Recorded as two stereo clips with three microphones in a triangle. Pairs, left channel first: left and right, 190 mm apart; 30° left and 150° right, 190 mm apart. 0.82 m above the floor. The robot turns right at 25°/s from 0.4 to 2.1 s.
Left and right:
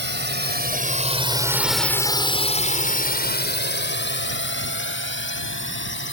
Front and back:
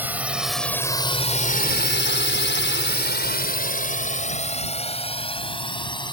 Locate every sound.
0.0 s a drone: 70° right; by 6.1 s 95° left